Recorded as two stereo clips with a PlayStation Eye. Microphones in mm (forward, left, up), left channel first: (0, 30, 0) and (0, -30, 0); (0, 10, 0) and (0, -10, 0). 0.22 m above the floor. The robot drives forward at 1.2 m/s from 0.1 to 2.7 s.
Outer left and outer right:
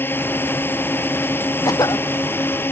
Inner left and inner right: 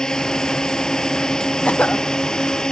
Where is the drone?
35° left (ahead or behind).